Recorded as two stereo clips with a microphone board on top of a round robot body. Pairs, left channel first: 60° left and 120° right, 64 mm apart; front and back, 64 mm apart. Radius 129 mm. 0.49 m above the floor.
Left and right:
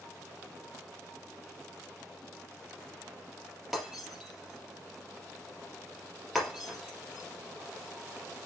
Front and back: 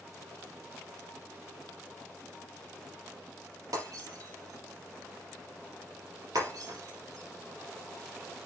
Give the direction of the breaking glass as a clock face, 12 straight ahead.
7 o'clock.